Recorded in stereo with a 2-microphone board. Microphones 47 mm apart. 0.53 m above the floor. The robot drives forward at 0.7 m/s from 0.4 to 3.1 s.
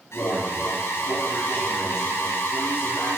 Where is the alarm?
70° left (ahead or behind), 8.5 m; by 3.2 s 60° left (ahead or behind), 9 m.